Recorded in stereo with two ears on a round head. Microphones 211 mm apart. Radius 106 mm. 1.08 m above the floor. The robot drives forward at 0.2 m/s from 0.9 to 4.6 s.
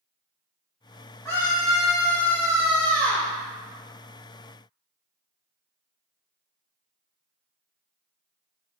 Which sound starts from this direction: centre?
A scream, at 1.2 s.